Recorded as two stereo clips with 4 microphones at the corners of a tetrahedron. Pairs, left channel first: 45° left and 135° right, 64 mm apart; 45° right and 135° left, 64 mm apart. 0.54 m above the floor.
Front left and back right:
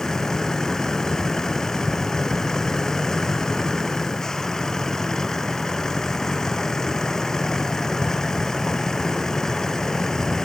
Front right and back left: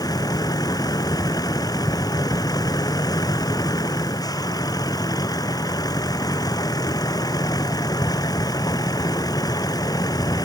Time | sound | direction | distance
0.0 | a vehicle | 35° right | ?